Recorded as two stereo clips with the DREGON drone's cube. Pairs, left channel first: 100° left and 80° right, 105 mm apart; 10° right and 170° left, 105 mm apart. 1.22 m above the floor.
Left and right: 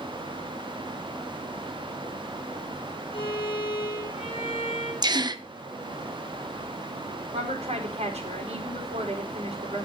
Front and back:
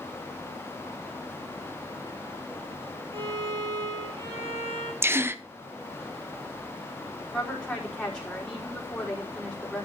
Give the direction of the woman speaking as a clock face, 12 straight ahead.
3 o'clock.